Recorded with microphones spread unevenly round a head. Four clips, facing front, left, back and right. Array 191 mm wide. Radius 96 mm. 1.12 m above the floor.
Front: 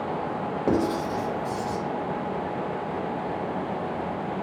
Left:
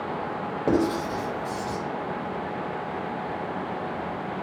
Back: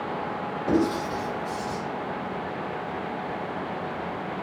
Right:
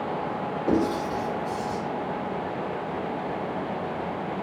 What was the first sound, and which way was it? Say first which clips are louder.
Writing: left 1 dB, back 1 dB; 40° left.